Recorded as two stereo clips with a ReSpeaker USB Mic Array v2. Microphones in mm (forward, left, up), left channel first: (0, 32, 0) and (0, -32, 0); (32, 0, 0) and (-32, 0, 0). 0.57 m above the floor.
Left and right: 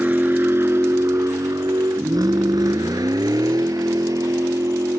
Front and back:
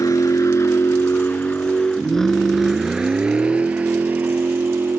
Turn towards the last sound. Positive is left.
turn(degrees=-120)